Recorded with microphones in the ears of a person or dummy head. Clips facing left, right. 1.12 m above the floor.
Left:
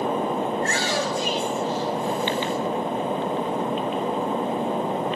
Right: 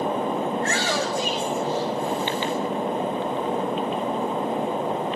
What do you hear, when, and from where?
0.6 s a shout: 65° right (ahead or behind), 7.5 m; by 2.5 s 75° right (ahead or behind), 8.5 m